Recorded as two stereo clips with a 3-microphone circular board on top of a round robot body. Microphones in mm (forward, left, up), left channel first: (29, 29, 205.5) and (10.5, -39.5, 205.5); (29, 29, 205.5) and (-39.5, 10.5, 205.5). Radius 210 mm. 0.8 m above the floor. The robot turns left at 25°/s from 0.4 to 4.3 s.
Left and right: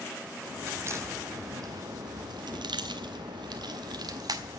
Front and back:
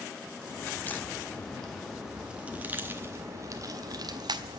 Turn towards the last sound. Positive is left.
turn(degrees=-135)